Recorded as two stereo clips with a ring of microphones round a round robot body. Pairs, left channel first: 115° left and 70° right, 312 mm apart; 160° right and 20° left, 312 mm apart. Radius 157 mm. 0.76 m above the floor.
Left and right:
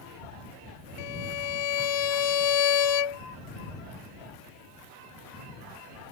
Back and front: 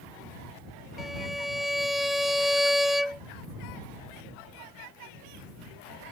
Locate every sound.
1.0 s a violin: 110° left